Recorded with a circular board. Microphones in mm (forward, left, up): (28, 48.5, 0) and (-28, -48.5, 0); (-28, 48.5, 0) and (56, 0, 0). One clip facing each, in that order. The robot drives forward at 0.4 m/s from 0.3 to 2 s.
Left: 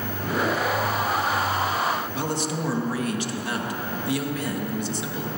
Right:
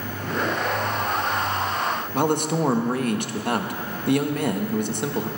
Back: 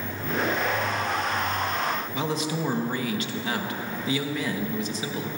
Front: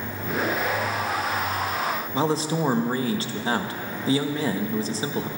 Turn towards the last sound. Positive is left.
turn(degrees=-85)